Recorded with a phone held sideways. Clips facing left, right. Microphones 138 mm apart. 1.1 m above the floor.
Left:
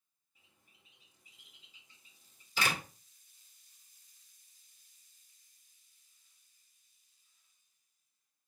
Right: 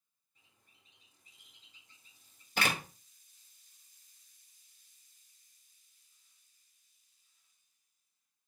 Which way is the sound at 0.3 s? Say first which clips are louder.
Left 1 dB; 5° left (ahead or behind).